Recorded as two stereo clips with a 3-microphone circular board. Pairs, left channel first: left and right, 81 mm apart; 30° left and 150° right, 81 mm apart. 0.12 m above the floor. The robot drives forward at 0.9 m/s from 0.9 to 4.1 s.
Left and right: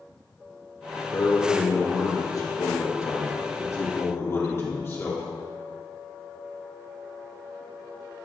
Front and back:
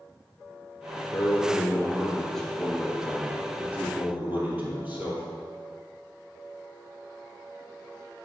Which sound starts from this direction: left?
A man speaking, at 1.1 s.